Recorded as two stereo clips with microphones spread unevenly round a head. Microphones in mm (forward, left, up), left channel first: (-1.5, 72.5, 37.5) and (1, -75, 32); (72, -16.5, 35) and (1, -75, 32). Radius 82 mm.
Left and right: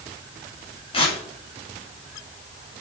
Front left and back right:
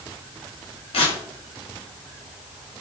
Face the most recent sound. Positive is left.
turn(degrees=40)